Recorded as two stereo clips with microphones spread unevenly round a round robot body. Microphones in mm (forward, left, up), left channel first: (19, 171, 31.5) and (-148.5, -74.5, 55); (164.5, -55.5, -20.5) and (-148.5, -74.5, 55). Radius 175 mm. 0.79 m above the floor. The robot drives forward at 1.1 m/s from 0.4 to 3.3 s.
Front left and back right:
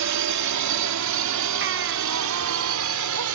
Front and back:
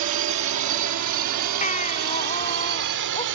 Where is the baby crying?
65° right; by 3.2 s 70° right.